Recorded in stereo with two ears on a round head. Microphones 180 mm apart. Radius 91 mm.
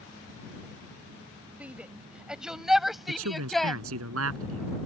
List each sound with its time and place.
1.6 s a shout: 5° right (ahead or behind); by 3.8 s centre (ahead or behind)
3.1 s a man speaking: 75° right (ahead or behind)